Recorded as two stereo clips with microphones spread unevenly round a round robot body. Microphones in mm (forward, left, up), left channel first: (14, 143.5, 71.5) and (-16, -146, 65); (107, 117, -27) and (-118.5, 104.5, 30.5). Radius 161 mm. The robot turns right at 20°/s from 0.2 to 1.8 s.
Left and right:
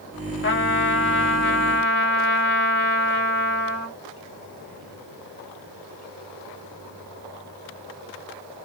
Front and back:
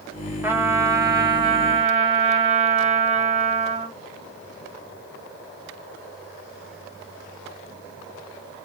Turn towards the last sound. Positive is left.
turn(degrees=115)